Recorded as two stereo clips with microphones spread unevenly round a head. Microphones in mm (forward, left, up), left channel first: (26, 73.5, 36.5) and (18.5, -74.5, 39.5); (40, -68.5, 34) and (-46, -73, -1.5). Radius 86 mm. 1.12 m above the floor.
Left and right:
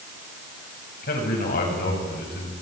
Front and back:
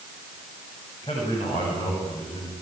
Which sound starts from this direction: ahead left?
A man speaking, at 1.0 s.